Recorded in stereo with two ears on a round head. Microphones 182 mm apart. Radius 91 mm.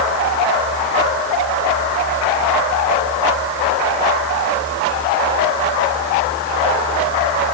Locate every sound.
Only background noise.